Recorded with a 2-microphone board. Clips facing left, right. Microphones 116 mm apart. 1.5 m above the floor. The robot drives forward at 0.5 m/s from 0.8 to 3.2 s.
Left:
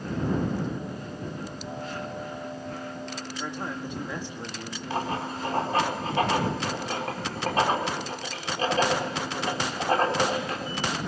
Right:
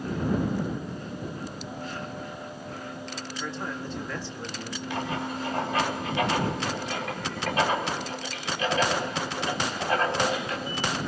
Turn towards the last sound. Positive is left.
turn(degrees=35)  # may be behind; listen again after turning